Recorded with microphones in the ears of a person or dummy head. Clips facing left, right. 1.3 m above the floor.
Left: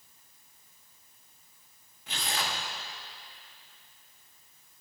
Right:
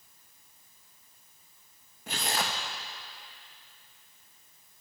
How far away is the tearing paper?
About 0.8 m.